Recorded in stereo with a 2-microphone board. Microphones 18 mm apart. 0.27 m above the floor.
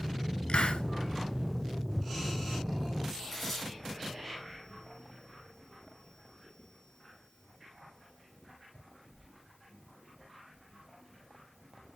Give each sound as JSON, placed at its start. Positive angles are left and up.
{"t": 0.5, "sound": "a hiss", "side_deg": 70, "distance_m": 1.0}
{"t": 3.3, "sound": "tearing paper", "side_deg": 5, "distance_m": 2.5}